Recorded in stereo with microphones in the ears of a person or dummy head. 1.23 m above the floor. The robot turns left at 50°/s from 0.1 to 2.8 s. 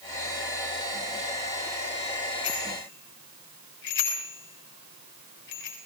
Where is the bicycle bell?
85° left, 7 m; by 5.8 s 65° left (ahead or behind), 7 m.